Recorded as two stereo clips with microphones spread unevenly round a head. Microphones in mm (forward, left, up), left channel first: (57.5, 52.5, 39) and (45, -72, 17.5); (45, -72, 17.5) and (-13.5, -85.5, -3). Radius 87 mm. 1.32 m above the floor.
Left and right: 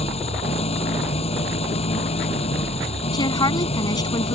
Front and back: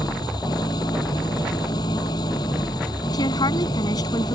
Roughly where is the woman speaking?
Ahead left.